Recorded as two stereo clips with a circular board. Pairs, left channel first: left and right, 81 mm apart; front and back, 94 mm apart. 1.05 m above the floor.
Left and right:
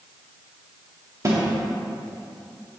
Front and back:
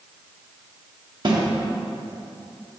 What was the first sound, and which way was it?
A snare drum, 140° right.